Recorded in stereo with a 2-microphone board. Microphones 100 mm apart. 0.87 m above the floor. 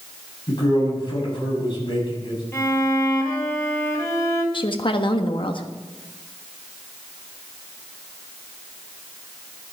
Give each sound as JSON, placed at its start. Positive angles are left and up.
{"t": 0.5, "sound": "a man speaking", "side_deg": 45, "distance_m": 7.0}
{"t": 2.5, "sound": "a violin", "side_deg": 25, "distance_m": 2.5}
{"t": 4.5, "sound": "a woman speaking", "side_deg": 50, "distance_m": 1.2}